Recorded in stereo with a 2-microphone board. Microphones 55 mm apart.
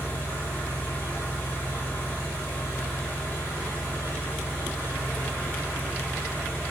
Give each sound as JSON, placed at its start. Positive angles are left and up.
{"t": 0.0, "sound": "an engine running", "side_deg": 30, "distance_m": 7.5}